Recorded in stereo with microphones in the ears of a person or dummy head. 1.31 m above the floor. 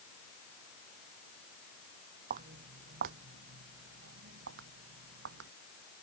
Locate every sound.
2.3 s footsteps: 40° right (ahead or behind); by 5.5 s 70° right (ahead or behind)